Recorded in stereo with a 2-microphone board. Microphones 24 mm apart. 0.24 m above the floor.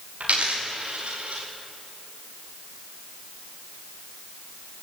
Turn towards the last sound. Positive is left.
turn(degrees=-65)  # may be behind; listen again after turning